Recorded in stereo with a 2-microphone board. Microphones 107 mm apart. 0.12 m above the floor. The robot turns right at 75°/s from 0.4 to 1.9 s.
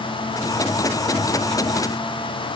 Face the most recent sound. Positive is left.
No sound to turn to.